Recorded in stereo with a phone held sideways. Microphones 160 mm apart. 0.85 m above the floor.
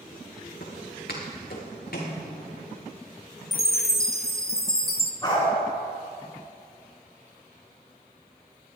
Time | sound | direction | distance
0.6 | footsteps | 75° left (ahead or behind) | 3 m
3.5 | a chime | 70° left (ahead or behind) | 0.9 m
5.2 | a dog barking | 30° left (ahead or behind) | 4.5 m